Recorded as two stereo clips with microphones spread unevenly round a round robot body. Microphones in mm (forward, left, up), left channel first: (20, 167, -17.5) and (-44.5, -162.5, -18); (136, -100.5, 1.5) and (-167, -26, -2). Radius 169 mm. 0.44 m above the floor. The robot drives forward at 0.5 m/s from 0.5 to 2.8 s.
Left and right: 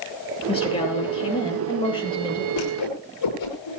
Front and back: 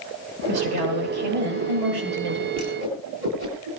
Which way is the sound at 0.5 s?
155° left.